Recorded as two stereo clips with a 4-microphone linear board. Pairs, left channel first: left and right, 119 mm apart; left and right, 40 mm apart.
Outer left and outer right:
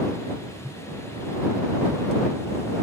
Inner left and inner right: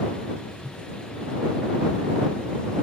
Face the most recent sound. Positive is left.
turn(degrees=-15)  # may be behind; listen again after turning